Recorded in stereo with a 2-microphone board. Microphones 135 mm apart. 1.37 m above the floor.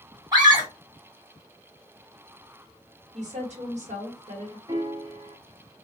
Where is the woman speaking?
55° right (ahead or behind), 1.4 m.